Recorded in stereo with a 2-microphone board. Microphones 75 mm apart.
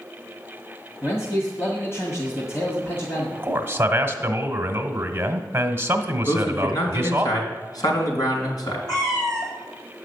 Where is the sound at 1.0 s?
35° left (ahead or behind), 1.9 m.